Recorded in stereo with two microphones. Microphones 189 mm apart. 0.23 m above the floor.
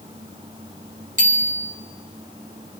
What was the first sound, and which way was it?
A bicycle bell, 45° right (ahead or behind).